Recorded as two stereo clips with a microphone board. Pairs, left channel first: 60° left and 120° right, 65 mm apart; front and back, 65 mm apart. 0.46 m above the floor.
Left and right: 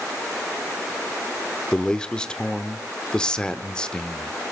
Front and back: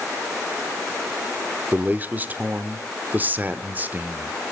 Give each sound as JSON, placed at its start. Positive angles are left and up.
{"t": 1.7, "sound": "a man speaking", "azimuth_deg": 135, "distance_m": 0.9}